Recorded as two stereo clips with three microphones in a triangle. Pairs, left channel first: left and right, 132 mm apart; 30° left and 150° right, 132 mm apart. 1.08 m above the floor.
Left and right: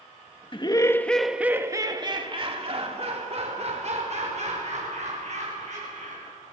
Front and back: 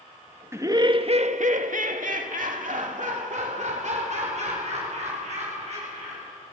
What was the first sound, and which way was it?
Laughter, 140° left.